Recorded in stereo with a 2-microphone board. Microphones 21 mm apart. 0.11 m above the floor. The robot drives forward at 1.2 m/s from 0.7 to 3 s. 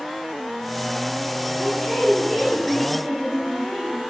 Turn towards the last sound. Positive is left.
turn(degrees=-15)  # may be behind; listen again after turning